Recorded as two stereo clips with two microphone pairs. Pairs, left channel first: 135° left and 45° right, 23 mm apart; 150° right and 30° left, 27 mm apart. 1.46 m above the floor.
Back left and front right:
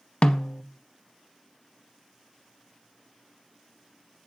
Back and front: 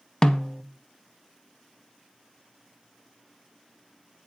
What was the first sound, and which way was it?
A snare drum, 155° left.